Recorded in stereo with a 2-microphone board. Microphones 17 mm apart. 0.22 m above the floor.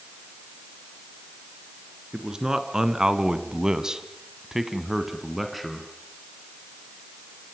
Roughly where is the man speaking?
Right.